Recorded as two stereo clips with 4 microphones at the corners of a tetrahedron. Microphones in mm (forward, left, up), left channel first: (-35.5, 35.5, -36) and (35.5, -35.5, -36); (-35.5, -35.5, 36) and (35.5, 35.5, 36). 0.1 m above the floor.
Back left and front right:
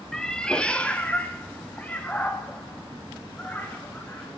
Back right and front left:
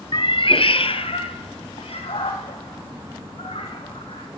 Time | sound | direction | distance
0.1 | a cat meowing | 140° right | 0.5 m